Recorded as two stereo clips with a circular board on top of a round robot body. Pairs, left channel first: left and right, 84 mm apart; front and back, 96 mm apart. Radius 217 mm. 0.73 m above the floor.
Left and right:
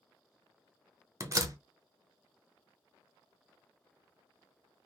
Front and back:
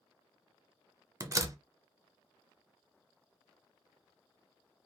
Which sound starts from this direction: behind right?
A door slam, at 1.2 s.